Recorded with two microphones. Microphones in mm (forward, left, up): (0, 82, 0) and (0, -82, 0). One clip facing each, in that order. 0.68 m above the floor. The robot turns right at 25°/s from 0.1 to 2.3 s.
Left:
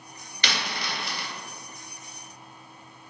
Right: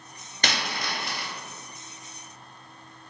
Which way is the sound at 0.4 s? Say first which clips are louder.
Right 2 dB; 45° right (ahead or behind).